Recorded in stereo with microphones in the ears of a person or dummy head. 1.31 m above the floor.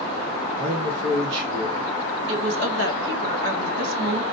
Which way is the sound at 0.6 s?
35° right (ahead or behind).